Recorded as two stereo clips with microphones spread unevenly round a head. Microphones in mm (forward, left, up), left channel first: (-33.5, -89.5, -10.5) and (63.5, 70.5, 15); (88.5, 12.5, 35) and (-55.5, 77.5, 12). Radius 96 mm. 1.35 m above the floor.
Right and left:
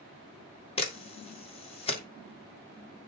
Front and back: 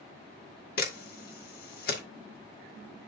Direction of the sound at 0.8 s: 60° right.